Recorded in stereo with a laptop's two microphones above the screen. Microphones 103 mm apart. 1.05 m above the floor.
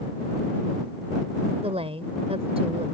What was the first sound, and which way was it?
A woman speaking, 85° right.